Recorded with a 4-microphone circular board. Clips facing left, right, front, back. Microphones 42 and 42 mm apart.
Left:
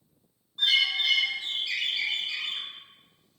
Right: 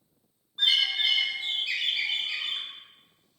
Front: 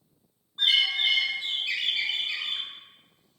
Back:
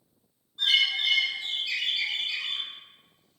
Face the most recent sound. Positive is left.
turn(degrees=-25)